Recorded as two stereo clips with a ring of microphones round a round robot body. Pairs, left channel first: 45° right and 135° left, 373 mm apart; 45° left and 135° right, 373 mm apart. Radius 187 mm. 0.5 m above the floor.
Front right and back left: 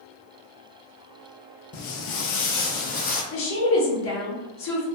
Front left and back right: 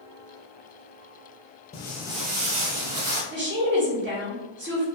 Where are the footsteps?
15° right, 0.5 m; by 3.2 s 110° right, 1.0 m.